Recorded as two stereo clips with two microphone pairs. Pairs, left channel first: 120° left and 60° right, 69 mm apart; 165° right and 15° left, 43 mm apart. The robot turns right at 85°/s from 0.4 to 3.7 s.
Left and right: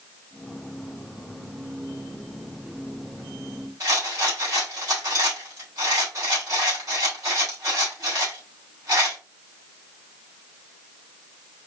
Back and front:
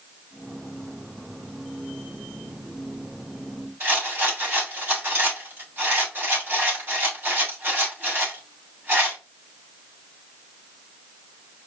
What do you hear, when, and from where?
3.8 s a rattle: 25° right, 2.5 m